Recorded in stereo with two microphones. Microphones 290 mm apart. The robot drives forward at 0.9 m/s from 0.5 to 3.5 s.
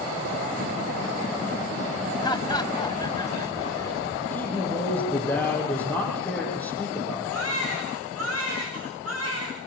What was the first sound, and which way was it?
Laughter, 15° left (ahead or behind).